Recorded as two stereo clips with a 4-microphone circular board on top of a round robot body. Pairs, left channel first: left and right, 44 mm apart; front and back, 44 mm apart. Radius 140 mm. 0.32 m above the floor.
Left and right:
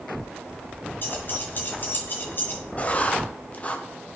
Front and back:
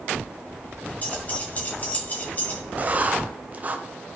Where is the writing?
140° left, 1.0 m.